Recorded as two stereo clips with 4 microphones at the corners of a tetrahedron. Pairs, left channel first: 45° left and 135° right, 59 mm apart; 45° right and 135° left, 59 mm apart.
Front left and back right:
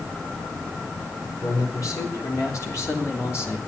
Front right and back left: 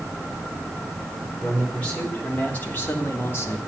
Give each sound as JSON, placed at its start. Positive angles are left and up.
{"t": 1.4, "sound": "a man speaking", "azimuth_deg": 25, "distance_m": 4.5}